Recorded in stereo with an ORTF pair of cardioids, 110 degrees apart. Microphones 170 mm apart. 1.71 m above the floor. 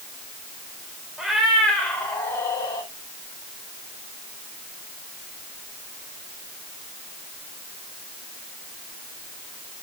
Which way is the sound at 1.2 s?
Straight ahead.